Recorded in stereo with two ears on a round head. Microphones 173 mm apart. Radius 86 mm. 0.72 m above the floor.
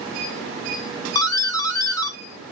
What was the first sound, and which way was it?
A doorbell, 15° left (ahead or behind).